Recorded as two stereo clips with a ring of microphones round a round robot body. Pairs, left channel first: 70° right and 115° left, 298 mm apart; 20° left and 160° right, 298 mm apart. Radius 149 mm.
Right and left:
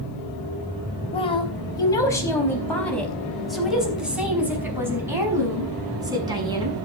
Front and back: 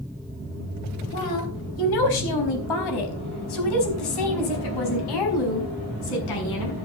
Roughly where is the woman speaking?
Ahead.